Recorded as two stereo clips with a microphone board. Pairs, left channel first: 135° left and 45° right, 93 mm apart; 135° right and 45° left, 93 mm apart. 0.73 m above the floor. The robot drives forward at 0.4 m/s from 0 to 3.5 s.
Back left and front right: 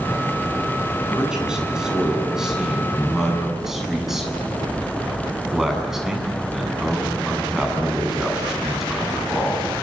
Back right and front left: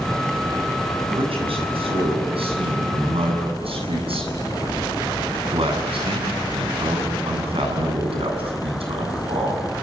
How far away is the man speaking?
About 9 m.